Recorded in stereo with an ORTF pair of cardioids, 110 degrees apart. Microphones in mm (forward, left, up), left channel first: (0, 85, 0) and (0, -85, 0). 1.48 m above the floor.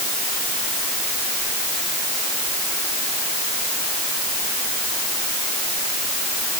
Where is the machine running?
I don't hear a machine running.